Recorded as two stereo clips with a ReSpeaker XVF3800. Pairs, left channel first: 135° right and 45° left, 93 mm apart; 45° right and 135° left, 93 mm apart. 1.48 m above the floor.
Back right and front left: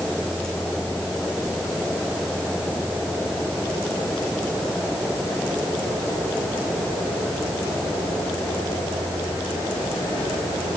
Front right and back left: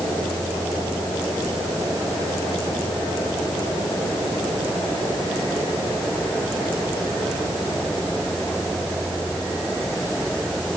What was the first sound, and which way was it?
Only background noise.